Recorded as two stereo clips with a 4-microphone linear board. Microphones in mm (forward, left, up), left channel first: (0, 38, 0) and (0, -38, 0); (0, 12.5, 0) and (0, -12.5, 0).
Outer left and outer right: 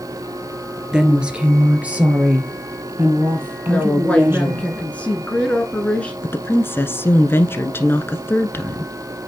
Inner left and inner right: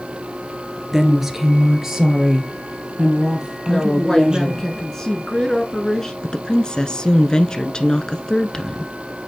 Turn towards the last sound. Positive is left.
turn(degrees=30)  # may be behind; listen again after turning